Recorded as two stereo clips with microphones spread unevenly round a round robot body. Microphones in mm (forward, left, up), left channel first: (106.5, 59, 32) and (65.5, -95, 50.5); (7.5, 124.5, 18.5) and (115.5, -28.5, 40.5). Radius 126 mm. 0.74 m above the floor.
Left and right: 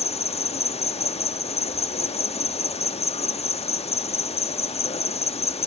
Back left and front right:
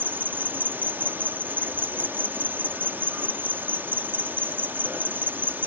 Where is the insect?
30° left.